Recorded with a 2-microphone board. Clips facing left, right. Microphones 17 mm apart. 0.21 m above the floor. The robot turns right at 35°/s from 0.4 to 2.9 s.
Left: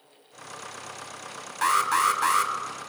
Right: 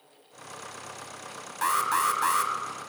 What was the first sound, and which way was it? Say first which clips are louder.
An alarm: left 3 dB; 20° left (ahead or behind).